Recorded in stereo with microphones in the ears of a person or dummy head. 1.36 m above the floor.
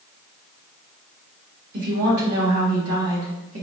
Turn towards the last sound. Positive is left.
turn(degrees=-65)  # may be behind; listen again after turning